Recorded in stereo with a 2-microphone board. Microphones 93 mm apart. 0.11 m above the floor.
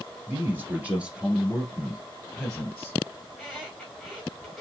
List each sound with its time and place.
0.3 s a man speaking: 25° right (ahead or behind), 1.6 m; by 3.0 s 15° left (ahead or behind), 2.0 m
3.3 s a squeak: 5° right (ahead or behind), 3.5 m